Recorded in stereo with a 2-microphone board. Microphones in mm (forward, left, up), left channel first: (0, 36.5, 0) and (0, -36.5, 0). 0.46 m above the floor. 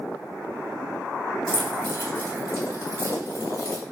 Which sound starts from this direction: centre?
Keys jangling, at 1.5 s.